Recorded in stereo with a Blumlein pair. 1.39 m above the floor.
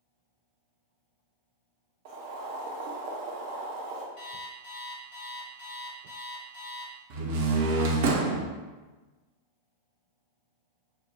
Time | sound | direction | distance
2.0 | boiling | 45° right | 0.7 m
4.2 | an alarm clock | 55° left | 1.5 m
7.1 | a door slam | 50° right | 0.6 m